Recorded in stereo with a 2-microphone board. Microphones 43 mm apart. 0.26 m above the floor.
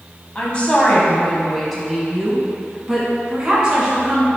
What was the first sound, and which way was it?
A woman speaking, 30° left (ahead or behind).